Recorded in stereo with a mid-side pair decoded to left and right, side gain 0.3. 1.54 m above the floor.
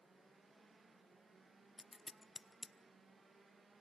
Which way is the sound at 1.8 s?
25° left.